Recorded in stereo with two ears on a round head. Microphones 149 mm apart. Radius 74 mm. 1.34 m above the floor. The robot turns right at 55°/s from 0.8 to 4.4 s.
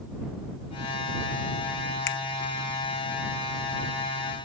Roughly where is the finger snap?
Left.